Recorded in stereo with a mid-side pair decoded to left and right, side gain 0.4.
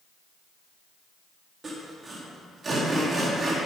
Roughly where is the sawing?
Ahead right.